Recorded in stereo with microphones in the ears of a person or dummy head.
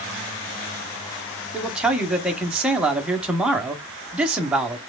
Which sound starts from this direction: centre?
A man speaking, at 1.5 s.